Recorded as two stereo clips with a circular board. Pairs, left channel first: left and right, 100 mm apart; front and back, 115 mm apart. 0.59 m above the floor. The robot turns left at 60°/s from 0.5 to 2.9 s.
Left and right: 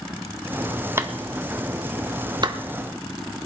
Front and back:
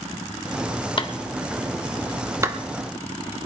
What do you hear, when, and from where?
1.0 s a clap: 30° right, 1.1 m; by 2.6 s 125° right, 1.1 m